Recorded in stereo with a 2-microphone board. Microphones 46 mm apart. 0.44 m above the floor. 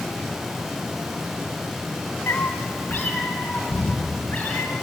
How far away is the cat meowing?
About 1.7 m.